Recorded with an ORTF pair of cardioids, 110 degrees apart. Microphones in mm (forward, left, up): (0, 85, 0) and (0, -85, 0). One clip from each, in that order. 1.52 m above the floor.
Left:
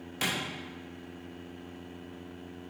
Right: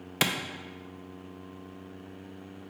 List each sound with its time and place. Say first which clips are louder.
0.2 s a clap: right 4 dB; 55° right, 0.7 m